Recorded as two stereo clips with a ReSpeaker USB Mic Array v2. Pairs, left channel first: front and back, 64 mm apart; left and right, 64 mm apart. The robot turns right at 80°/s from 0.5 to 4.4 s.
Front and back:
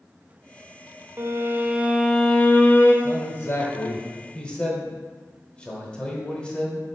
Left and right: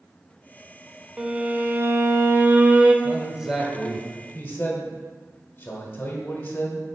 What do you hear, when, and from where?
1.2 s a violin: 160° right, 0.6 m; by 2.9 s 20° right, 0.6 m
3.0 s a man speaking: 50° right, 1.3 m; by 6.8 s 60° left, 1.3 m